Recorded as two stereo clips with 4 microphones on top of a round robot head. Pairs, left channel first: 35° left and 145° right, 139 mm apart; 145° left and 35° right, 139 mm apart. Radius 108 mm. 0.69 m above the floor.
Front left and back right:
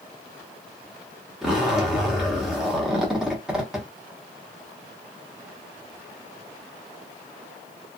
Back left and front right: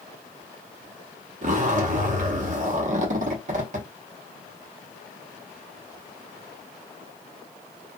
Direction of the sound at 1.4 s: 60° right.